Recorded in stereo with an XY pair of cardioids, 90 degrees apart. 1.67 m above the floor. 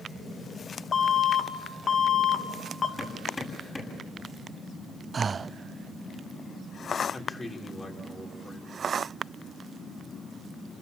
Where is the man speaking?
30° left, 5.5 m.